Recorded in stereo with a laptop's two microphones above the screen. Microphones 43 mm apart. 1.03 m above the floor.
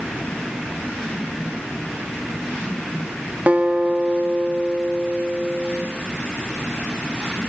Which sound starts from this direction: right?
A guitar, at 3.5 s.